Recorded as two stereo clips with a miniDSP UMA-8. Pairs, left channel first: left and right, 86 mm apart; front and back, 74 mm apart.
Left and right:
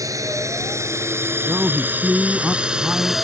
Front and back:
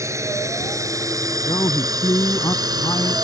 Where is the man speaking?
15° right.